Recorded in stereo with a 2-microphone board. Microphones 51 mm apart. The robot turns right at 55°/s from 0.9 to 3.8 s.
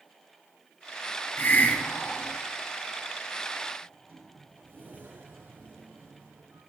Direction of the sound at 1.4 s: 115° left.